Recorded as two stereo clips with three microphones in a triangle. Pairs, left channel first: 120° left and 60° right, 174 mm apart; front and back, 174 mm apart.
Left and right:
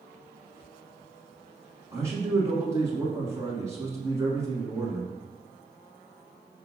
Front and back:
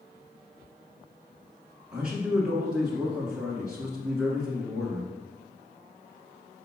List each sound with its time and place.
1.9 s a man speaking: 100° right, 1.5 m